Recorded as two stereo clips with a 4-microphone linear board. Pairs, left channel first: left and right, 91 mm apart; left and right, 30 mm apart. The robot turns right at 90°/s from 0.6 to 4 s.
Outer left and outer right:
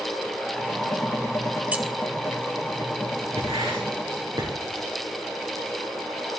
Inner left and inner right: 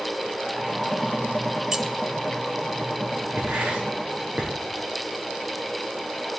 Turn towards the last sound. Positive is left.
turn(degrees=-50)  # may be behind; listen again after turning